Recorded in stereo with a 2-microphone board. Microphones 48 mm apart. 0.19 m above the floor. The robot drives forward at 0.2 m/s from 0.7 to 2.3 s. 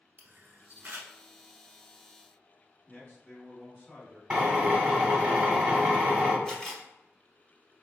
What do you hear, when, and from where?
0.2 s a camera shutter: 35° right (ahead or behind), 0.7 m; by 1.1 s 40° right (ahead or behind), 0.7 m
2.9 s a man speaking: 30° left (ahead or behind), 1.5 m
4.3 s a drill: 15° right (ahead or behind), 1.1 m
6.5 s a camera shutter: 10° left (ahead or behind), 0.8 m